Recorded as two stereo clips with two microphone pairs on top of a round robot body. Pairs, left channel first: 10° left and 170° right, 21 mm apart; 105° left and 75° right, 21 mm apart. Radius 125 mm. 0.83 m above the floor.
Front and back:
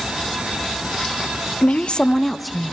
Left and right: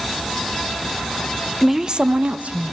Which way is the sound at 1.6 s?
20° left.